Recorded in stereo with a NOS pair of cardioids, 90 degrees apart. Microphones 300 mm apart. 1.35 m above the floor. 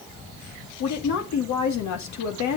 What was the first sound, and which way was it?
A woman speaking, 65° left.